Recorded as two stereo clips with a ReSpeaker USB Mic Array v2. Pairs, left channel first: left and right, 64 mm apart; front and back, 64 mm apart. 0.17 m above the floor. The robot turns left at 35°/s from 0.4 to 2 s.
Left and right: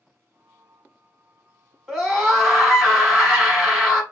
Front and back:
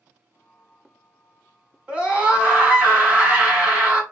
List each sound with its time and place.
1.9 s a scream: 155° right, 1.0 m; by 4.0 s 160° right, 1.0 m